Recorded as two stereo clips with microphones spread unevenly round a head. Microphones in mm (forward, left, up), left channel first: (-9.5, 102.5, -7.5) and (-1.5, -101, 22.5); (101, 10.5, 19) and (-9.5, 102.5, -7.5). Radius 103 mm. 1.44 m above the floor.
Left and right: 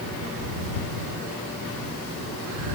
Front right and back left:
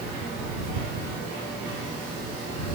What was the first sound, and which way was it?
Only background noise.